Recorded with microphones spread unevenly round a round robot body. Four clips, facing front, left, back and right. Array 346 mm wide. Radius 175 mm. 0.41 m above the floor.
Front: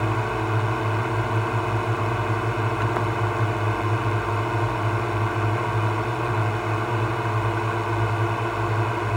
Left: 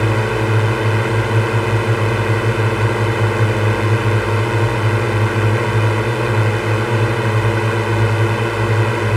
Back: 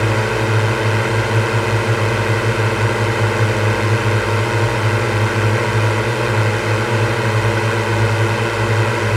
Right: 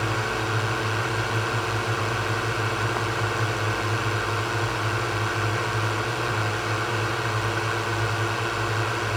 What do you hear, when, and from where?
0.0 s a drone: 125° left